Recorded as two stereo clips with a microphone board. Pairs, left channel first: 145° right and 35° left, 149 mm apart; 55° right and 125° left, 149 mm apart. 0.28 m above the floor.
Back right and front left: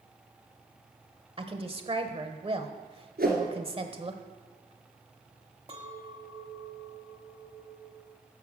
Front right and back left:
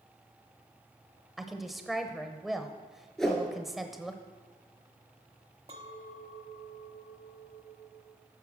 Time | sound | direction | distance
1.4 | a woman speaking | 35° left | 1.1 m
3.2 | a whoosh | 30° left | 2.5 m
5.7 | a clink | 80° left | 1.3 m